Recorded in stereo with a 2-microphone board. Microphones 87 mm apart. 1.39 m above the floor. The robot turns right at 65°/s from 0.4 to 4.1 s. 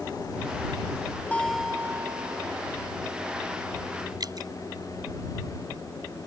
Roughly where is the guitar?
Behind.